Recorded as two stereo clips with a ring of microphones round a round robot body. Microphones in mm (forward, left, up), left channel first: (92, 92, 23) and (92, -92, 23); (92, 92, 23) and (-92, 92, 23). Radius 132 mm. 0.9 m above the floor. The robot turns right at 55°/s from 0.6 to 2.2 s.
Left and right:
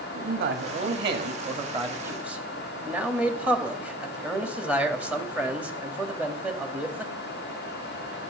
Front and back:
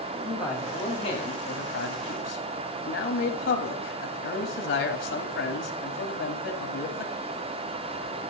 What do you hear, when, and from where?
0.1 s a man speaking: 95° right, 1.8 m; by 7.1 s 5° right, 1.8 m